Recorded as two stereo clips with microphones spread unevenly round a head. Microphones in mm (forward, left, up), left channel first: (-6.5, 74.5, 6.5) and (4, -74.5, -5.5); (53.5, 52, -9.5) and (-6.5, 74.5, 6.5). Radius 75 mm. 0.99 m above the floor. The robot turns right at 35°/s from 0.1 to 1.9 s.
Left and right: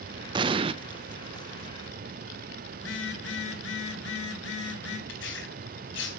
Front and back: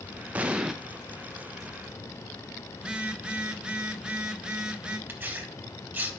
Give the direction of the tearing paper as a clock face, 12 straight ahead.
9 o'clock.